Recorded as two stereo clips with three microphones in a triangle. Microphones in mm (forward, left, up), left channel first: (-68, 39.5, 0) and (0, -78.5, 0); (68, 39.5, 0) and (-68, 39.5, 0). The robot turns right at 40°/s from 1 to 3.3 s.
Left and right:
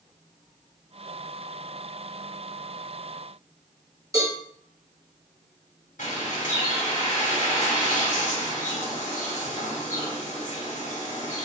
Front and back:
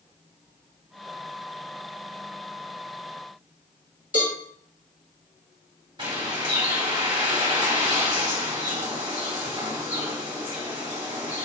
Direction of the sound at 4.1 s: 5° left.